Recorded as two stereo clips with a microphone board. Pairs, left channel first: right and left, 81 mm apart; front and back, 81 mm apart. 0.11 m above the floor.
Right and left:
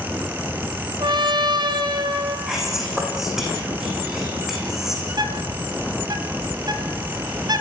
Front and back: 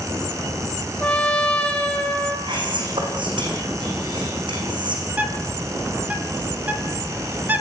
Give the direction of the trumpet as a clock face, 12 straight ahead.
10 o'clock.